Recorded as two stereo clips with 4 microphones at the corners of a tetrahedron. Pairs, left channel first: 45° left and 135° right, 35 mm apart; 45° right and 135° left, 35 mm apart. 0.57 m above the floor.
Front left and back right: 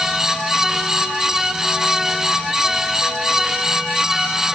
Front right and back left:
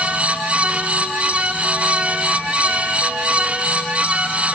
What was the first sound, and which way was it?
Only background noise.